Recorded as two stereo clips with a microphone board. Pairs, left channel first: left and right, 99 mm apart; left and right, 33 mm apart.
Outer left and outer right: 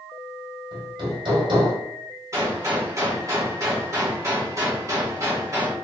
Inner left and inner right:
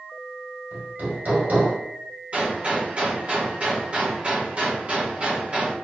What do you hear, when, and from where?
0.7 s hammering: 55° right (ahead or behind), 1.4 m
2.3 s a gunshot: 35° right (ahead or behind), 1.5 m